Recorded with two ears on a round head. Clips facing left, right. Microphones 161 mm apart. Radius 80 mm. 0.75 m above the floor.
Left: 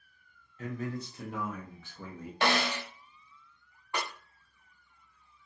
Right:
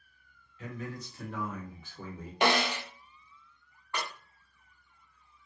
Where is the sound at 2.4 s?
15° right (ahead or behind), 0.6 m.